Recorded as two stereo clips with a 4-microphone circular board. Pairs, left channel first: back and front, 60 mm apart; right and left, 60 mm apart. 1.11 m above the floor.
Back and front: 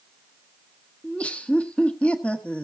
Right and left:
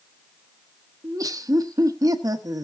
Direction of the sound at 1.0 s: 110° left.